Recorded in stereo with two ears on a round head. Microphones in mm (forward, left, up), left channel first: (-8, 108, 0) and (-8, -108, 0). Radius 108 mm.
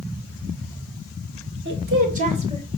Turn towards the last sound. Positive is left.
turn(degrees=-20)  # may be behind; listen again after turning